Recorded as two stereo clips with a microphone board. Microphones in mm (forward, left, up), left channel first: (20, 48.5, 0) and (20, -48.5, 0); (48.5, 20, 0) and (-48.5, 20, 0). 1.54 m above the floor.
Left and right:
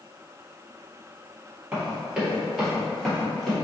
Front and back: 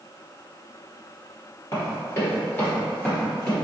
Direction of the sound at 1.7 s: 20° right.